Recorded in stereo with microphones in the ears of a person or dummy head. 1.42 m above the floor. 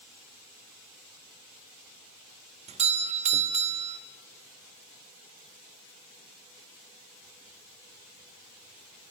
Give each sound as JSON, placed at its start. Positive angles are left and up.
{"t": 2.7, "sound": "a doorbell", "side_deg": -30, "distance_m": 1.0}